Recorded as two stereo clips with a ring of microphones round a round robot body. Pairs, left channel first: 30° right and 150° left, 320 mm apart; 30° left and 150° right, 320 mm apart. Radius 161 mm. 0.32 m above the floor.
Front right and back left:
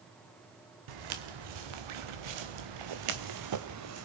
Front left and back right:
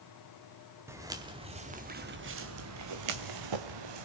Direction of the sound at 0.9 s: 125° left.